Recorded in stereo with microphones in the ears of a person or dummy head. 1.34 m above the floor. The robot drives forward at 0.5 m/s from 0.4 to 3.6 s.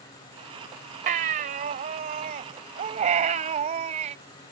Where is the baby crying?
40° right (ahead or behind); by 4.2 s 30° right (ahead or behind).